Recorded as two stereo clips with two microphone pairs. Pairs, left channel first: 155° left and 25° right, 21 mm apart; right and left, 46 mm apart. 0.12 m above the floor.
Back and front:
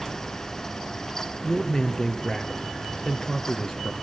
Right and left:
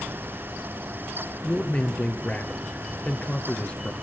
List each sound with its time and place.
1.4 s a man speaking: 150° right, 2.0 m